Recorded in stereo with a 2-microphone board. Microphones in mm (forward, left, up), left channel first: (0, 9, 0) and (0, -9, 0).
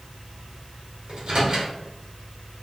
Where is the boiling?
No boiling in this recording.